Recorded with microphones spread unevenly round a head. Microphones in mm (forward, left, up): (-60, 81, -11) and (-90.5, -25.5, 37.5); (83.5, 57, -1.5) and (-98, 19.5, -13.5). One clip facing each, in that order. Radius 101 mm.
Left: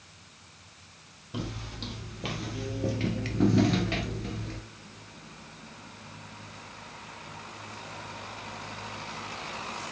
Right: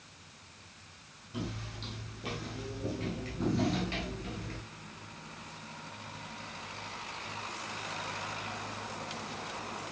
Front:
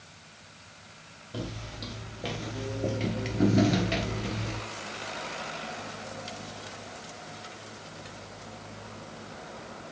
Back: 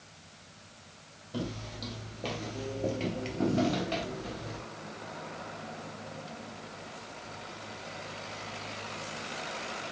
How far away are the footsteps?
About 2.5 m.